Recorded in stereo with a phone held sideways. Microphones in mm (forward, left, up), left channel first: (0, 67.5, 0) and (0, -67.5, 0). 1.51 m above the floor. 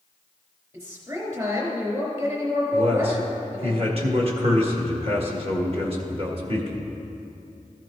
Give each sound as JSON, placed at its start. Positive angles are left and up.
{"t": 0.7, "sound": "a woman speaking", "side_deg": -30, "distance_m": 3.5}
{"t": 2.7, "sound": "a man speaking", "side_deg": -45, "distance_m": 1.6}